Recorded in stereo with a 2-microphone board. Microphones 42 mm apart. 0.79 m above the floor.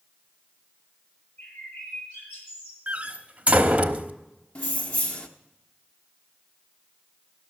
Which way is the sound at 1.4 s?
85° left.